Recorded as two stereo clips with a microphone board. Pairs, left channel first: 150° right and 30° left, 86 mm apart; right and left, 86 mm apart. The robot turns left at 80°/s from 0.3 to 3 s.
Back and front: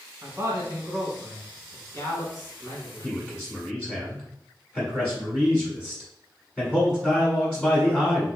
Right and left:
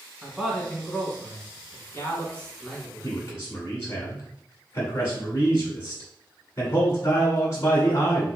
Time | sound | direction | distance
0.2 | a man speaking | 15° left | 1.3 m
3.0 | a man speaking | 70° right | 1.2 m